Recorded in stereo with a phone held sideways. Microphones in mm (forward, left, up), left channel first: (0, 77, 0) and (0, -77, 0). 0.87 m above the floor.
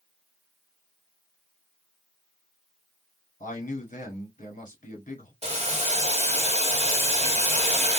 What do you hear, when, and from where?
3.4 s a man speaking: 55° left (ahead or behind), 1.6 m
5.4 s boiling: 45° right (ahead or behind), 1.1 m